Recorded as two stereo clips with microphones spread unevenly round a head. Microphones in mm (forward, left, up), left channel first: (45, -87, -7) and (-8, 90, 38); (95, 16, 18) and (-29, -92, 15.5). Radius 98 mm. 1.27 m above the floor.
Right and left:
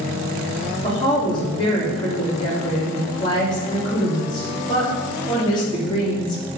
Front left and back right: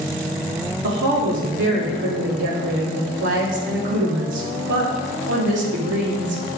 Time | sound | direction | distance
0.8 | a woman speaking | 140° right | 3.5 m